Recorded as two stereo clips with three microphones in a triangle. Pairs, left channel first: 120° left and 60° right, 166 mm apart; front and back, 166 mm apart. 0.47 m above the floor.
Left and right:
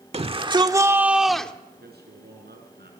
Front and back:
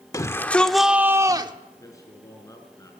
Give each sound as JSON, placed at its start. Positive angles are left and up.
{"t": 0.1, "sound": "a shout", "azimuth_deg": -55, "distance_m": 1.3}
{"t": 1.8, "sound": "a man speaking", "azimuth_deg": -70, "distance_m": 6.0}